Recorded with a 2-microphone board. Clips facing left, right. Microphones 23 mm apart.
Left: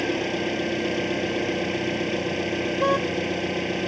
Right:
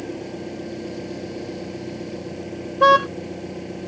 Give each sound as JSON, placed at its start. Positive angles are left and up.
{"t": 0.0, "sound": "an engine running", "side_deg": 65}
{"t": 2.8, "sound": "a car horn", "side_deg": -85}